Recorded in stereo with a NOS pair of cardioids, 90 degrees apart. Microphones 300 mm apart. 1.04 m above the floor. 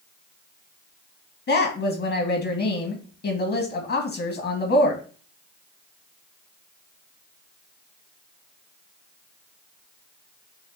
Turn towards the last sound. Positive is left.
turn(degrees=50)